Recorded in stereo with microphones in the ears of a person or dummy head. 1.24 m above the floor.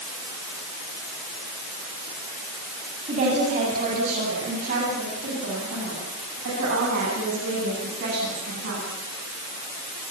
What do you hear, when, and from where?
3.1 s a woman speaking: 40° right (ahead or behind), 9.5 m; by 8.8 s 60° right (ahead or behind), 12.5 m